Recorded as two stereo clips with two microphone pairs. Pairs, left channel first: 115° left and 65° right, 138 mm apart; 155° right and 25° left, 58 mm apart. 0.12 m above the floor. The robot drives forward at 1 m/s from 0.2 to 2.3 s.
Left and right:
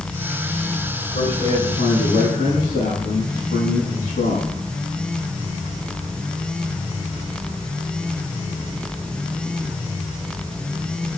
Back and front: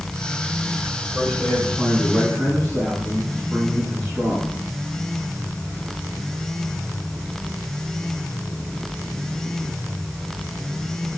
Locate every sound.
1.1 s a man speaking: 105° left, 7.5 m; by 4.5 s 110° left, 8 m